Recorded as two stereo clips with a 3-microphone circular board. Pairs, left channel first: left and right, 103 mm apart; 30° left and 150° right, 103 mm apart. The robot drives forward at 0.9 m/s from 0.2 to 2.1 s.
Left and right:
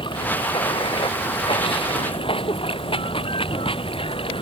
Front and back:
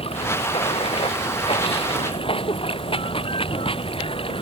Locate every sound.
0.0 s running water: 50° left; by 4.4 s 60° left